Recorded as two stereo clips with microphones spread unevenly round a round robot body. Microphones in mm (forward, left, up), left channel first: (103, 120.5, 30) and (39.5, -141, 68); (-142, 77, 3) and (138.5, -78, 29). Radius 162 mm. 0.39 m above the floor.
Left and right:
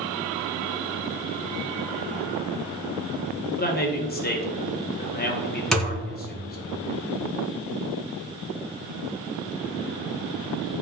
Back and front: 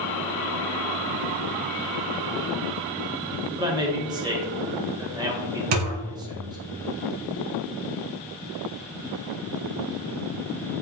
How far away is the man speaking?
About 1.8 m.